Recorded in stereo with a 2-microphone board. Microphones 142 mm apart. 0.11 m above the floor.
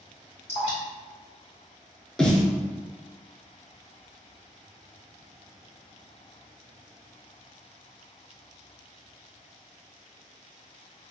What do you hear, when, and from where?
0.5 s dripping: 45° left (ahead or behind), 1.7 m
2.2 s a snare drum: 5° left (ahead or behind), 0.5 m